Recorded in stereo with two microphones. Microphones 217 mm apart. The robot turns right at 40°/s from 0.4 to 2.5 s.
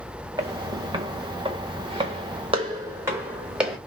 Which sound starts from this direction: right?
Footsteps, at 0.4 s.